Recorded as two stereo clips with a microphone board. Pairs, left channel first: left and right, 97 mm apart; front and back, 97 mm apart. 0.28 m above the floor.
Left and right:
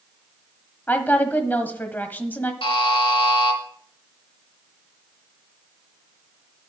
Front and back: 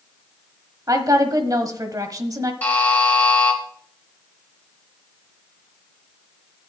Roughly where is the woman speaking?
Behind left.